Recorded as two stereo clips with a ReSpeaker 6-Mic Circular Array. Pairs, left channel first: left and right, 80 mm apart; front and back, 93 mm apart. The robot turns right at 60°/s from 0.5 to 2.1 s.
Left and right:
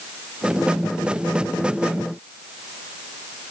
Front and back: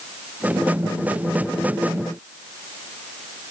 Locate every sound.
Only background noise.